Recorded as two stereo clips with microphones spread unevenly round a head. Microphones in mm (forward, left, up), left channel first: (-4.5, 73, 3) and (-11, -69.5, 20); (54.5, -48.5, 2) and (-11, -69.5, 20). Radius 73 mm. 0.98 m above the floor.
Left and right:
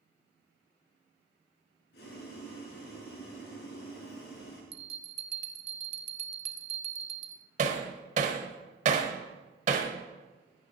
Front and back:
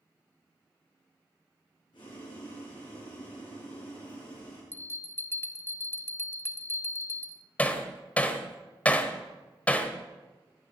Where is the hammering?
60° right, 1.3 m.